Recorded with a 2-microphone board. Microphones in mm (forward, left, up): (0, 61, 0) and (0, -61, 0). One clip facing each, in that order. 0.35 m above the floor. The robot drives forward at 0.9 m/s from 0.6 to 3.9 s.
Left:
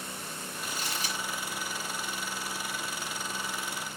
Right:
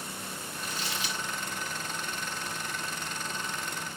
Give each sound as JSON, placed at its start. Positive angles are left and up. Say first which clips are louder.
{"t": 0.6, "sound": "crumpling", "louder": "even", "side_deg": 45, "distance_m": 4.0}